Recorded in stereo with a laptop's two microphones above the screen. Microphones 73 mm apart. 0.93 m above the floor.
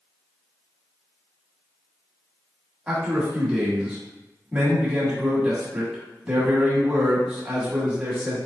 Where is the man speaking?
10° right (ahead or behind), 1.1 m.